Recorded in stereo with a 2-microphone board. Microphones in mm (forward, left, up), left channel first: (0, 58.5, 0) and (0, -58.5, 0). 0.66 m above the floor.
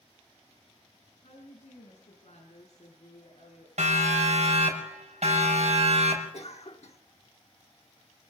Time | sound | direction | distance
1.2 | a woman speaking | 75° left (ahead or behind) | 5.5 m
3.8 | a siren | 70° right (ahead or behind) | 5.5 m
6.3 | a cough | 65° left (ahead or behind) | 1.1 m